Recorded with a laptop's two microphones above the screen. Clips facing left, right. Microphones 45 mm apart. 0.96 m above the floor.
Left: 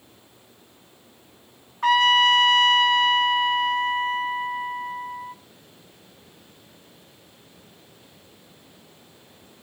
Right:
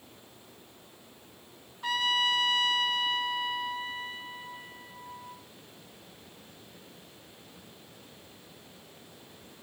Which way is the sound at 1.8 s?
70° left (ahead or behind).